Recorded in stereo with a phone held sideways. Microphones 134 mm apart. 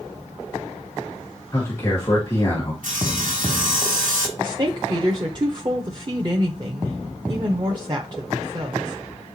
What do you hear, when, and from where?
1.5 s a man speaking: 20° left (ahead or behind), 1.7 m
2.8 s sawing: 70° right (ahead or behind), 2.5 m
4.4 s a woman speaking: 35° right (ahead or behind), 0.9 m